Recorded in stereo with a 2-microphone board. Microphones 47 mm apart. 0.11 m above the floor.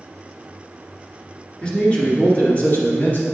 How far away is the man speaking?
About 1.7 m.